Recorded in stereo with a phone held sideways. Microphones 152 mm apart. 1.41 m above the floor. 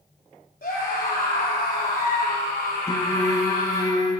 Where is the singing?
25° left (ahead or behind), 1.0 m.